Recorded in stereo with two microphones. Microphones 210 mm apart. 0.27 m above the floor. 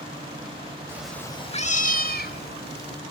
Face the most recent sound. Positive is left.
turn(degrees=55)  # may be behind; listen again after turning